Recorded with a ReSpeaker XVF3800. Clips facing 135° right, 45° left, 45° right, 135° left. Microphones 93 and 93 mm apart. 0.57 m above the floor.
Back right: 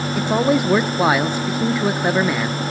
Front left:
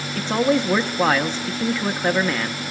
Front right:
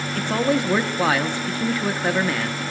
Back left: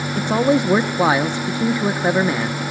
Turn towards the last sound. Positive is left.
turn(degrees=165)